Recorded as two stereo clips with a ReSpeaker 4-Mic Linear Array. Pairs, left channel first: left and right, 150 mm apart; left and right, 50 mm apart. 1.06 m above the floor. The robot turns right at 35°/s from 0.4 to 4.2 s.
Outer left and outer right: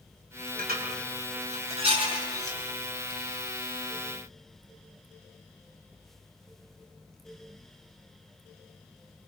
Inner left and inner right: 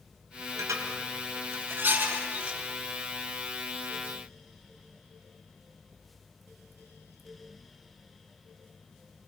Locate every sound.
0.6 s dishes clattering: 85° right, 4 m; by 2.6 s 15° right (ahead or behind), 4 m